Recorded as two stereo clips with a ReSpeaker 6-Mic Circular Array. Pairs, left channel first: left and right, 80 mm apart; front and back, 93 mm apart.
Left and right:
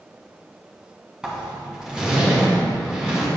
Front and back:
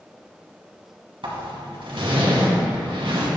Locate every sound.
1.2 s a zipper: 170° right, 2 m